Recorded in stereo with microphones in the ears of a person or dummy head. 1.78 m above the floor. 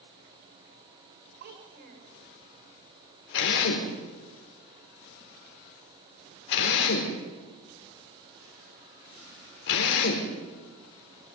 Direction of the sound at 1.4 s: 50° right (ahead or behind).